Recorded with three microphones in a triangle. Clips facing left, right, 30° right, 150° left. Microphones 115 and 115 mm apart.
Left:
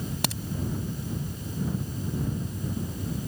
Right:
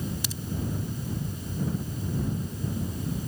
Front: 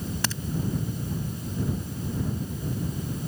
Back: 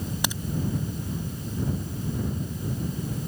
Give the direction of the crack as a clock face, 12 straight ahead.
9 o'clock.